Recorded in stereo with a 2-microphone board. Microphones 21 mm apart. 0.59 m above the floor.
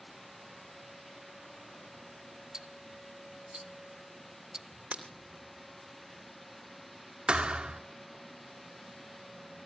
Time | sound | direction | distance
2.5 | ticking | 30° right (ahead or behind) | 1.2 m
4.9 | breaking glass | 75° right (ahead or behind) | 2.5 m
7.3 | a thud | 55° right (ahead or behind) | 0.8 m